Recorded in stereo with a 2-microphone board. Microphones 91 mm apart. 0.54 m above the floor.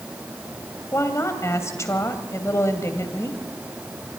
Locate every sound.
0.9 s a woman speaking: 35° left (ahead or behind), 2.5 m